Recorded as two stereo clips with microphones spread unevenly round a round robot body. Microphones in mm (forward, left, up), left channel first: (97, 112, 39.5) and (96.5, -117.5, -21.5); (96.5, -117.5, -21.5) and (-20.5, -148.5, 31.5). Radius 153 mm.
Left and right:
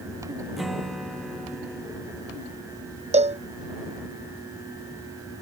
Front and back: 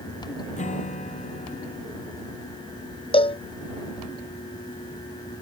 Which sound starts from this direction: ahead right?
A cowbell, at 3.1 s.